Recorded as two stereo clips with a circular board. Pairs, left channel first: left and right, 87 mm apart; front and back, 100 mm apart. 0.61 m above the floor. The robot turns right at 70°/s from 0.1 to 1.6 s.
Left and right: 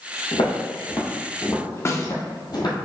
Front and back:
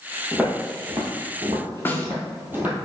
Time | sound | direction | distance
0.3 | footsteps | 95° left | 1.3 m
1.9 | a snare drum | 60° left | 0.6 m